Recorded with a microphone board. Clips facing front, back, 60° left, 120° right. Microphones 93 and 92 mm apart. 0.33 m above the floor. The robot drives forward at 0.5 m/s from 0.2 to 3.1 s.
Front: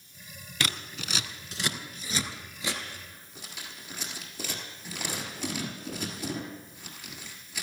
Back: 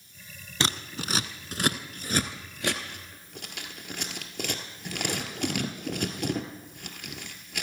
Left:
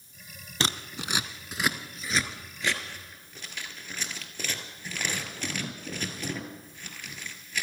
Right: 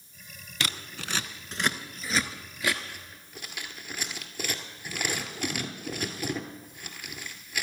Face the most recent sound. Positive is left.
turn(degrees=160)